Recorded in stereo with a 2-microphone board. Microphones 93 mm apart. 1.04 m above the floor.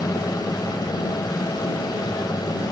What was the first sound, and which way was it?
An aircraft, 45° left (ahead or behind).